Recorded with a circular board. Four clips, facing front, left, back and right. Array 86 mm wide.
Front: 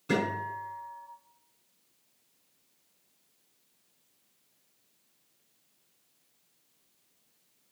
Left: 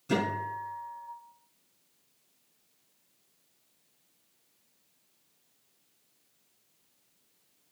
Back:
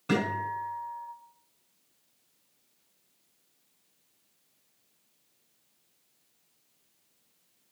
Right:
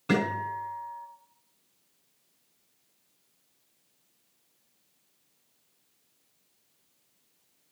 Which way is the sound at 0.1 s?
120° right.